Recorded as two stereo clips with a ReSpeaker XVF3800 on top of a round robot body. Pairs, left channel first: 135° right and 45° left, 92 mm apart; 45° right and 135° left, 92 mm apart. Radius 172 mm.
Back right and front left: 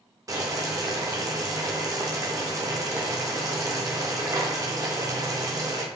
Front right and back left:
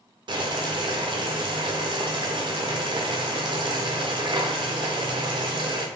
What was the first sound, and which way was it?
Boiling, 100° left.